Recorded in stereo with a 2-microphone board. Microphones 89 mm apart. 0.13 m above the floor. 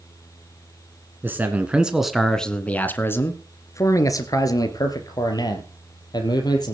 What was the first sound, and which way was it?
A man speaking, 25° right (ahead or behind).